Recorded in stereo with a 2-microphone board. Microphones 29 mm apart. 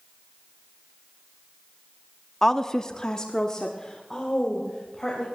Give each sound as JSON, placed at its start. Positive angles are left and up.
{"t": 2.4, "sound": "a woman speaking", "side_deg": 15, "distance_m": 0.7}